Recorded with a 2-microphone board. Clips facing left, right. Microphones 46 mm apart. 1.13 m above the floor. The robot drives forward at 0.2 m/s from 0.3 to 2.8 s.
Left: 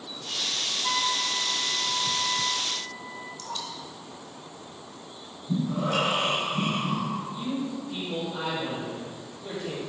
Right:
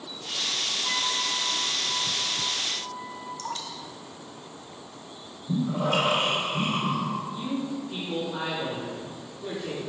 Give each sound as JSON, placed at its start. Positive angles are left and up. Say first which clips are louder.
{"t": 0.8, "sound": "a flute", "louder": "left 3 dB", "side_deg": 30, "distance_m": 0.8}
{"t": 3.4, "sound": "dripping", "louder": "right 1 dB", "side_deg": -50, "distance_m": 1.3}
{"t": 5.5, "sound": "breathing", "louder": "right 1 dB", "side_deg": -55, "distance_m": 1.9}
{"t": 7.3, "sound": "a man speaking", "louder": "even", "side_deg": -25, "distance_m": 2.0}